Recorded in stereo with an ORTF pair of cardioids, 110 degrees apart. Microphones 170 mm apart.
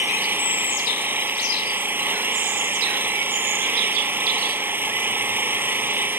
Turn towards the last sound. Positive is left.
turn(degrees=-10)